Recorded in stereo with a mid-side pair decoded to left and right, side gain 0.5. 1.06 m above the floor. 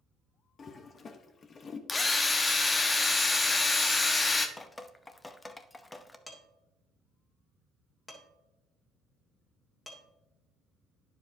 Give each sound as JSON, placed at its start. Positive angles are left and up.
{"t": 0.6, "sound": "a toilet flushing", "azimuth_deg": 40, "distance_m": 1.0}
{"t": 1.9, "sound": "a drill", "azimuth_deg": 25, "distance_m": 1.0}
{"t": 4.6, "sound": "dripping", "azimuth_deg": 15, "distance_m": 0.7}
{"t": 6.3, "sound": "dishes clattering", "azimuth_deg": 20, "distance_m": 2.0}